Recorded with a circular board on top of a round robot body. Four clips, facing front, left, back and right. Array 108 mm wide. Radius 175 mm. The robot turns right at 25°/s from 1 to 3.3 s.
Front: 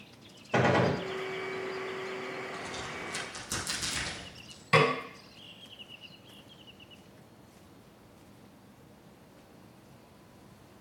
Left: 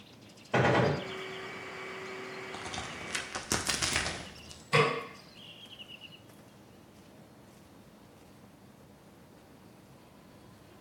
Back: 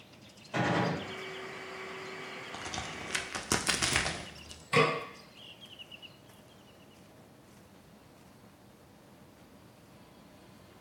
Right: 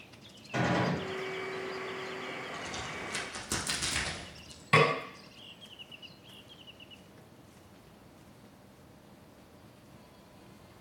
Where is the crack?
135° left, 1.2 m; by 4.6 s 155° left, 1.2 m.